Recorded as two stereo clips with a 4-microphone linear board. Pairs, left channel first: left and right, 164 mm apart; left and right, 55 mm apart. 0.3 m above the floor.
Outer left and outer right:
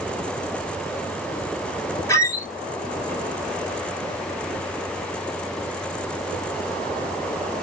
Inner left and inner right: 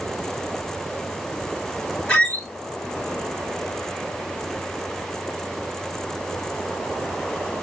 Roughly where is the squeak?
Centre.